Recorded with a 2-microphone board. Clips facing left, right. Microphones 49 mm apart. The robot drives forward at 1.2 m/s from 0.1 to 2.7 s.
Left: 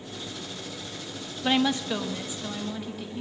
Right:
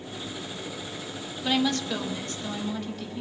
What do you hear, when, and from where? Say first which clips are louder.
1.4 s a woman speaking: left 1 dB; 20° left (ahead or behind), 0.9 m; by 3.2 s 5° left (ahead or behind), 2.5 m